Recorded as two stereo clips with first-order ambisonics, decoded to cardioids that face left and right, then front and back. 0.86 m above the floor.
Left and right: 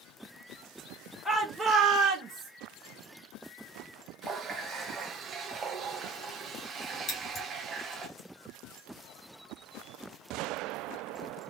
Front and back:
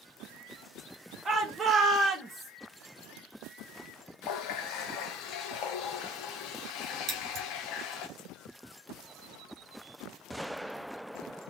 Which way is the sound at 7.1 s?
140° left.